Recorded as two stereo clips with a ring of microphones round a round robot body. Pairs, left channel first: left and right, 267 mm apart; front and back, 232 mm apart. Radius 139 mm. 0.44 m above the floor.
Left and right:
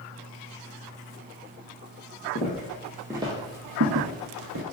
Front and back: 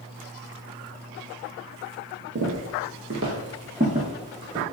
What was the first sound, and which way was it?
Footsteps, 150° left.